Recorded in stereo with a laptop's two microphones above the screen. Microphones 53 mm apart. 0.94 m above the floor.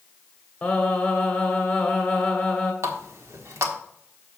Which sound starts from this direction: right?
A running tap, at 2.8 s.